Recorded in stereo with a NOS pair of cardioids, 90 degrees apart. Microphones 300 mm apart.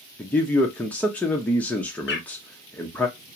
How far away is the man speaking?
About 0.5 m.